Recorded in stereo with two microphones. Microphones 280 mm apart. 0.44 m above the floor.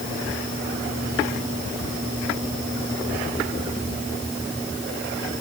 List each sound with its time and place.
Only background noise.